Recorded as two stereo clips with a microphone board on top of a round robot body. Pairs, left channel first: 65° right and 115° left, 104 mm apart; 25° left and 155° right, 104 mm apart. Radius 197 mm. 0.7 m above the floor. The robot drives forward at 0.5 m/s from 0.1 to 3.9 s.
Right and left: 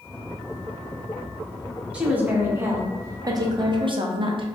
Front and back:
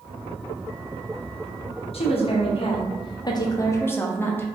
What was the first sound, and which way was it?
A woman speaking, 35° left.